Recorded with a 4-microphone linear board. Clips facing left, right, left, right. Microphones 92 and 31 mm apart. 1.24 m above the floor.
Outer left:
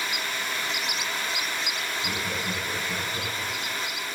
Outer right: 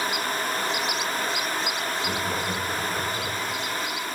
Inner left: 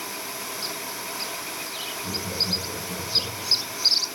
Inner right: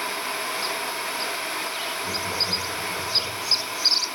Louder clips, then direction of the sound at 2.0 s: Outer right 3 dB, even; 20° left (ahead or behind).